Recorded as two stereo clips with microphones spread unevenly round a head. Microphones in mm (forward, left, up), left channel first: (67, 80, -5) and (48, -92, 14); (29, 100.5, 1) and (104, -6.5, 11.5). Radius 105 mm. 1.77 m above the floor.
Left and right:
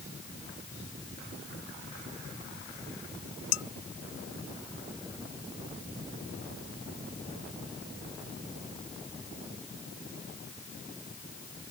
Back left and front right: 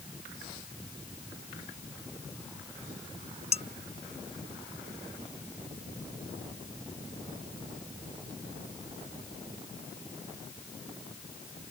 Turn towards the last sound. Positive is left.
turn(degrees=90)